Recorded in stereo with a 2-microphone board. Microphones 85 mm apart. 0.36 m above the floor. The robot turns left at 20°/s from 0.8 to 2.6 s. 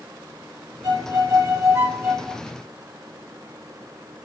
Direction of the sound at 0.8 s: 130° right.